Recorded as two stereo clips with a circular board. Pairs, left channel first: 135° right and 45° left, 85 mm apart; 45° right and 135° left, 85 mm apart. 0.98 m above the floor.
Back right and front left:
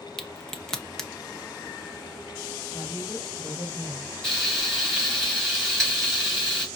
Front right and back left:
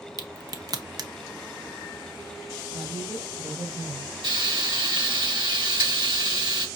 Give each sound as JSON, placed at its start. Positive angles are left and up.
{"t": 0.2, "sound": "a crack", "azimuth_deg": 145, "distance_m": 0.6}
{"t": 2.7, "sound": "a woman speaking", "azimuth_deg": 160, "distance_m": 3.5}
{"t": 4.2, "sound": "frying", "azimuth_deg": 140, "distance_m": 3.0}